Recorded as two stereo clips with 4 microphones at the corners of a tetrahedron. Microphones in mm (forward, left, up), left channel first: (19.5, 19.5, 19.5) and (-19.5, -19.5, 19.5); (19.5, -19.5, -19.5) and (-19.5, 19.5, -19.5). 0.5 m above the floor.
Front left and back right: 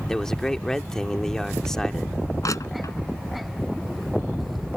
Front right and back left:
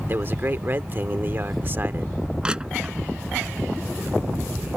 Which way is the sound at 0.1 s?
120° left.